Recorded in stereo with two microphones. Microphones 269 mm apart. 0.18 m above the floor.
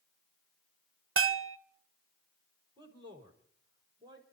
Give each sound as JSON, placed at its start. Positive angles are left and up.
{"t": 1.2, "sound": "a bell", "side_deg": -50, "distance_m": 0.5}
{"t": 2.8, "sound": "a man speaking", "side_deg": -20, "distance_m": 5.0}